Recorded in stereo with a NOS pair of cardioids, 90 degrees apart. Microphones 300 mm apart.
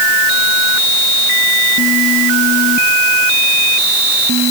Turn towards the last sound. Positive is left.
No sound to turn to.